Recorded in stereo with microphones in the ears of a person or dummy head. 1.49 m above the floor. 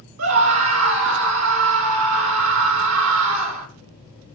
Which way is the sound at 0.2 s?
80° right.